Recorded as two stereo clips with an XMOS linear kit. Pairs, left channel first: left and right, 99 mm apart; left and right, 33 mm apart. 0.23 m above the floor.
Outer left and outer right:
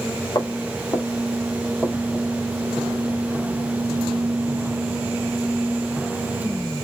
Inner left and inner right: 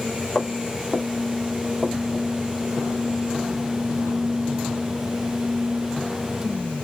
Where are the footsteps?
40° left (ahead or behind), 2.5 m; by 2.3 s centre (ahead or behind), 2.5 m.